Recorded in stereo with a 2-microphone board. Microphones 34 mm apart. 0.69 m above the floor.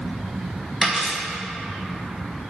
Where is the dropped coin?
20° right (ahead or behind), 1.4 m.